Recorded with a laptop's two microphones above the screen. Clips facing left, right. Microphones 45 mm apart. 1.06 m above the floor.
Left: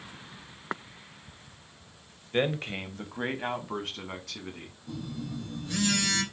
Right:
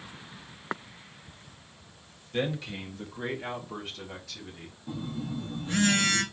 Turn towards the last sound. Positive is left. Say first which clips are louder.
# right 2 dB
turn(degrees=-35)  # may be behind; listen again after turning